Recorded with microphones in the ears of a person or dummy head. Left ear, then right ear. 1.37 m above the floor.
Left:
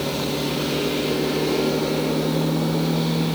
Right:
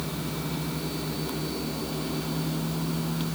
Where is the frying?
I don't hear frying.